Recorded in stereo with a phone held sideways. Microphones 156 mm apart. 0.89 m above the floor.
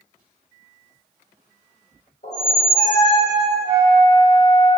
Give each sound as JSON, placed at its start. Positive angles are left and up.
{"t": 2.2, "sound": "a squeak", "side_deg": 65, "distance_m": 1.7}
{"t": 3.6, "sound": "a flute", "side_deg": 30, "distance_m": 1.3}